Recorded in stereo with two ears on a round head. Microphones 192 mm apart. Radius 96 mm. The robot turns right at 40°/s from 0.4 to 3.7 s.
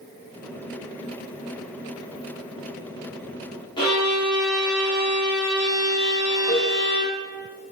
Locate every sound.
3.8 s a violin: 25° left (ahead or behind), 2.5 m
6.5 s a cowbell: 30° left (ahead or behind), 3 m